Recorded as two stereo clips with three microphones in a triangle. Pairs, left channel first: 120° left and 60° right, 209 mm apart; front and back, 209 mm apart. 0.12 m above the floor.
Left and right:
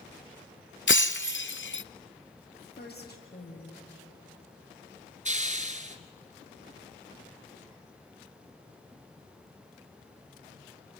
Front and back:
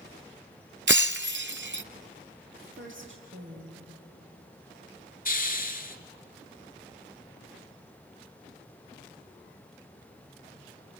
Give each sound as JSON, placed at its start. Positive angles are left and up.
{"t": 0.9, "sound": "breaking glass", "azimuth_deg": 150, "distance_m": 0.5}
{"t": 2.6, "sound": "a woman speaking", "azimuth_deg": 160, "distance_m": 6.0}
{"t": 5.2, "sound": "a hiss", "azimuth_deg": -20, "distance_m": 1.5}